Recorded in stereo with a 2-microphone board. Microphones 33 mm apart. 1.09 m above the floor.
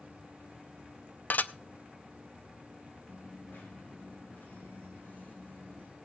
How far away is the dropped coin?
About 6 m.